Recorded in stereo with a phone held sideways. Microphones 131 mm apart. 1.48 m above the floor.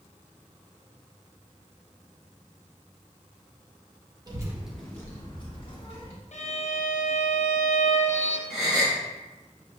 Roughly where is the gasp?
Centre.